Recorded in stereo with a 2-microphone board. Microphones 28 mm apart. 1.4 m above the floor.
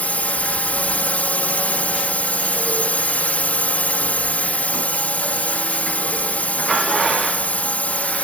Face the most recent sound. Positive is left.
turn(degrees=65)  # may be behind; listen again after turning